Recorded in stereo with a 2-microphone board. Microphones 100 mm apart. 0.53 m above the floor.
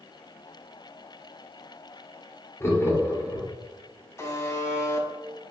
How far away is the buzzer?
About 0.7 m.